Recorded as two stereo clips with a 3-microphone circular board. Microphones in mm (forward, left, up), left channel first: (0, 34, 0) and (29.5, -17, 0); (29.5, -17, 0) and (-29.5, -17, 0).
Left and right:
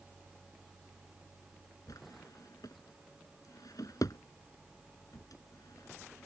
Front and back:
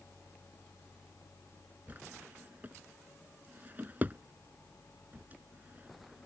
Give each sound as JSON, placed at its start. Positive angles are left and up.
{"t": 1.9, "sound": "a drawer", "azimuth_deg": 120}